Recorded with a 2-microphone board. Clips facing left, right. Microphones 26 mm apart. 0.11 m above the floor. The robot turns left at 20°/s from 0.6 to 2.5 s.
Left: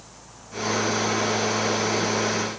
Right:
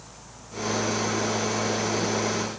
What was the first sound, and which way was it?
Only background noise.